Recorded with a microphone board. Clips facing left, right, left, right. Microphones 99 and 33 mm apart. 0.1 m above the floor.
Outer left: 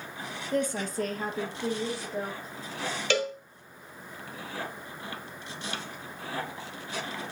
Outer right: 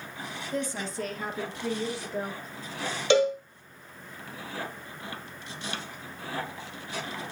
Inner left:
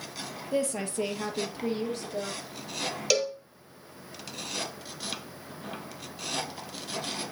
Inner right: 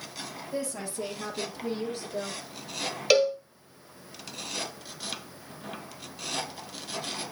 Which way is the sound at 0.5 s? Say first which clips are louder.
Outer left 4 dB, inner left 5 dB; 60° left (ahead or behind).